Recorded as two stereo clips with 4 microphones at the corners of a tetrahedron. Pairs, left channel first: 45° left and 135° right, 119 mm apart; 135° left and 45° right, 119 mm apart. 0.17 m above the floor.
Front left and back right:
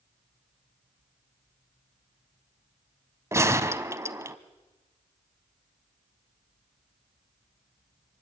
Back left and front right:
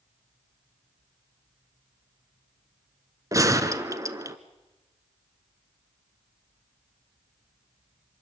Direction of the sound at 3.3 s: 85° right.